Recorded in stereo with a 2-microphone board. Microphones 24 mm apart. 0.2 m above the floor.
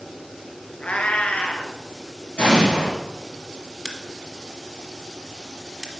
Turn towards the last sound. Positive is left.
turn(degrees=-5)  # may be behind; listen again after turning